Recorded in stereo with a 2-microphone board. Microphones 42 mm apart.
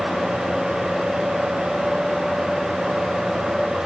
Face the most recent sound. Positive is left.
No sound to turn to.